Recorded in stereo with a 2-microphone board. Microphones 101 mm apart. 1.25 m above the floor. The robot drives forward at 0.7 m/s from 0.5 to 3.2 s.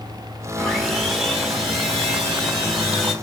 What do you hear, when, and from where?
0.6 s sawing: centre (ahead or behind), 1.8 m